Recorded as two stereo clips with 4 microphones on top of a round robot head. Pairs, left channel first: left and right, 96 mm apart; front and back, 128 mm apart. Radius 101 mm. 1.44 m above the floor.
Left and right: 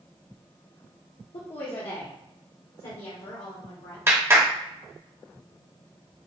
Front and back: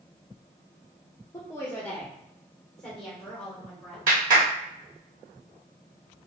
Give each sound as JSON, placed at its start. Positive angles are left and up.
{"t": 1.3, "sound": "a woman speaking", "azimuth_deg": 65, "distance_m": 0.7}
{"t": 4.1, "sound": "a clap", "azimuth_deg": -155, "distance_m": 1.1}